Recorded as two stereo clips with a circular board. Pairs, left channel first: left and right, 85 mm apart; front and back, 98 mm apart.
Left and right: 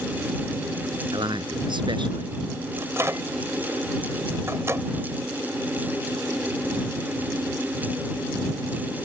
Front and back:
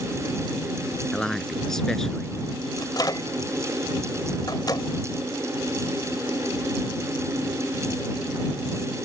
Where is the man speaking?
85° right.